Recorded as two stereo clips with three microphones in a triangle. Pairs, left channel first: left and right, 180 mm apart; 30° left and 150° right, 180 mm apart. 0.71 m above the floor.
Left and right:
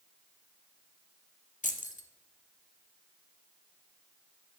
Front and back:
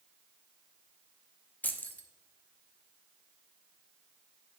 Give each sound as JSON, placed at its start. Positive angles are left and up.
{"t": 1.6, "sound": "keys jangling", "azimuth_deg": 110, "distance_m": 0.7}